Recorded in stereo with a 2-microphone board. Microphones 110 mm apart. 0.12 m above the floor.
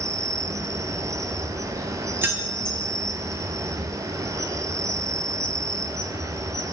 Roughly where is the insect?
Right.